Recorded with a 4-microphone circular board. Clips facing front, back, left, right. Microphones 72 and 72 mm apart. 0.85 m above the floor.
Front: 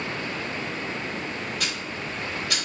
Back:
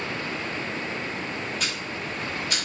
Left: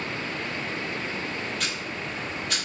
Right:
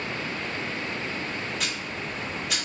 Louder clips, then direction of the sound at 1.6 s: Even, even; 5° right.